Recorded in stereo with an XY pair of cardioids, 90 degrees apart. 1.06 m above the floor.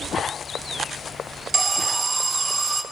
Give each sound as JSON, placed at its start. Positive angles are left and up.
{"t": 1.5, "sound": "an alarm", "azimuth_deg": -30, "distance_m": 0.6}